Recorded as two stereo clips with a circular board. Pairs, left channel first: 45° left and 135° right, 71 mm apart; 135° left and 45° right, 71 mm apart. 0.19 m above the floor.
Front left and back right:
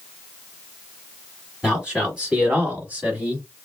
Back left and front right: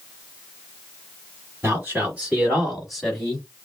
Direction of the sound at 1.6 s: 65° right.